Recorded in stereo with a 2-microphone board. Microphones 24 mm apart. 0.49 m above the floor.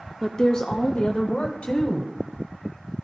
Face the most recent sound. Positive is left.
turn(degrees=50)  # may be behind; listen again after turning